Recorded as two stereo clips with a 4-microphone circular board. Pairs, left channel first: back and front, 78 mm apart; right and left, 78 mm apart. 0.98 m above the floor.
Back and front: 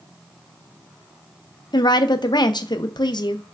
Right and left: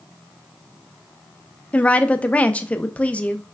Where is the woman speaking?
160° right, 0.5 m.